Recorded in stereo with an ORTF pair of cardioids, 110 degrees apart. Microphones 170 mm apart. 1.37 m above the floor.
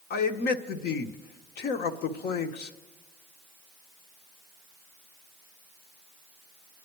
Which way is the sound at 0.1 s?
65° left.